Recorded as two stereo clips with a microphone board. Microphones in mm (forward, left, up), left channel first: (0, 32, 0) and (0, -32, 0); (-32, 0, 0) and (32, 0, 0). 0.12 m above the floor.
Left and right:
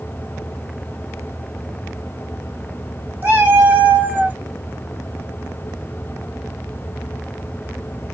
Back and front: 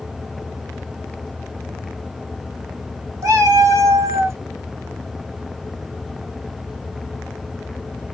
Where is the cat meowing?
30° right, 1.2 m; by 4.4 s 35° right, 0.5 m.